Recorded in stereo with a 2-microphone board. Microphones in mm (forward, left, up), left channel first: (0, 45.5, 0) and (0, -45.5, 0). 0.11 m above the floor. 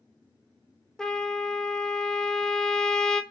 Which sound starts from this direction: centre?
A trumpet, at 1.0 s.